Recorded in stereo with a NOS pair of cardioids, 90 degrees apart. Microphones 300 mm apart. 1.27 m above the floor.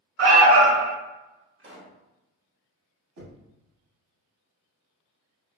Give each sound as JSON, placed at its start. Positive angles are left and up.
{"t": 0.2, "sound": "an alarm", "azimuth_deg": -50, "distance_m": 1.1}
{"t": 1.6, "sound": "a pop", "azimuth_deg": -40, "distance_m": 1.0}
{"t": 3.2, "sound": "knocking", "azimuth_deg": -70, "distance_m": 1.3}